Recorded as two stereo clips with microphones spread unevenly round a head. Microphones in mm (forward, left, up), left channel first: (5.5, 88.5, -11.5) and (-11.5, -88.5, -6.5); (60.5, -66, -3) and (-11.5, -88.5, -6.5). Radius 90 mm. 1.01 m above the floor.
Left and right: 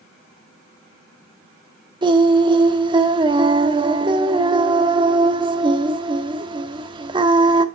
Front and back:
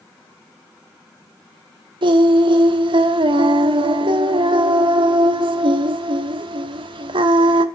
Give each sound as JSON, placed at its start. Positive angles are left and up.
{"t": 2.0, "sound": "singing", "azimuth_deg": -160, "distance_m": 1.2}